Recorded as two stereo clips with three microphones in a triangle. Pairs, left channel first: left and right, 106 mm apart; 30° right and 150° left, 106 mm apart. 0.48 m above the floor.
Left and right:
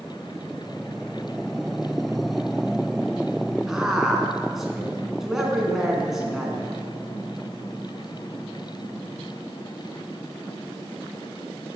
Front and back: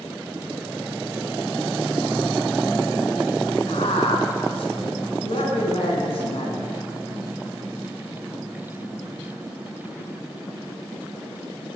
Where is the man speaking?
5° right, 4 m.